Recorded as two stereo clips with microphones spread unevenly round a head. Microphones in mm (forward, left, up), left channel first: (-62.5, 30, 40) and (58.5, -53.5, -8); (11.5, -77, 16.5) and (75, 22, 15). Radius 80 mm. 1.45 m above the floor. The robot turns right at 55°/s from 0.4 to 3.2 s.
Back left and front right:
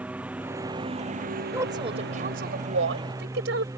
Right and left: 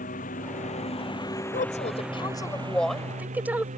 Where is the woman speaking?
110° right; by 3.7 s 20° right.